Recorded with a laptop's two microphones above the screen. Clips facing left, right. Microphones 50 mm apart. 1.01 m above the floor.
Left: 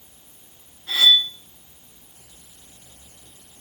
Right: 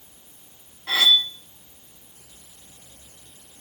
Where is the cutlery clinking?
80° right, 1.3 m.